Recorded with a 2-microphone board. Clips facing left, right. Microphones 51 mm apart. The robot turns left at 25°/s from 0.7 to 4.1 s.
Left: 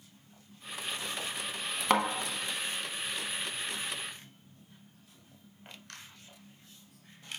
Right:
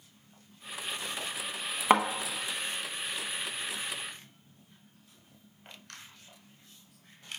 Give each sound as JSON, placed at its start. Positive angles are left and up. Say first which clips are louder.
{"t": 1.9, "sound": "a thud", "louder": "right 4 dB", "side_deg": -20, "distance_m": 0.6}